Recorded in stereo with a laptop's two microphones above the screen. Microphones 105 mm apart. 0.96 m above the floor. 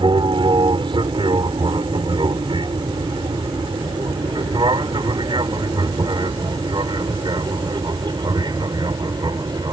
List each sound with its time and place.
0.0 s an aircraft: 50° right (ahead or behind); by 9.7 s 40° right (ahead or behind)